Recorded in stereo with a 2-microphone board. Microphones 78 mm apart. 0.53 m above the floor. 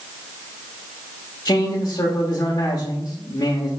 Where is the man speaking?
50° left (ahead or behind), 1.2 m.